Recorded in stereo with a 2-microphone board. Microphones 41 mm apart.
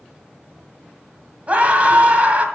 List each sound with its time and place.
1.5 s a scream: 35° right (ahead or behind), 1.8 m